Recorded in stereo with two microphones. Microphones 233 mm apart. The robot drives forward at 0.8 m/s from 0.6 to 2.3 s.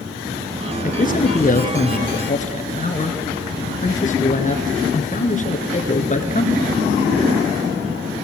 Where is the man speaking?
40° left (ahead or behind), 1.8 m; by 6.6 s 35° left (ahead or behind), 1.9 m.